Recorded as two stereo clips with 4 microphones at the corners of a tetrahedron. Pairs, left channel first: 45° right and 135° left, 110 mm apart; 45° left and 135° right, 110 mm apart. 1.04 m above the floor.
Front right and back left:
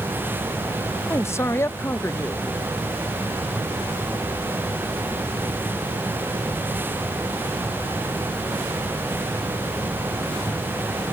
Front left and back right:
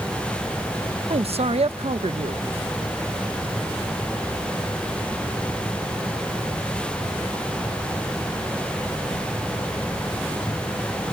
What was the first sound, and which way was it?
A man speaking, 110° right.